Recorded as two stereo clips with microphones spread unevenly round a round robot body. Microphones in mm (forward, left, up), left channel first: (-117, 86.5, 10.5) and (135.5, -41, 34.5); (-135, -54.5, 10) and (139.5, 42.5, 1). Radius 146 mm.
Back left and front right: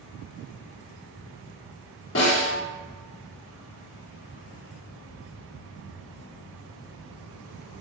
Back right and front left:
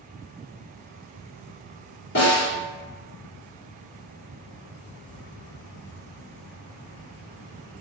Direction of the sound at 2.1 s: 155° left.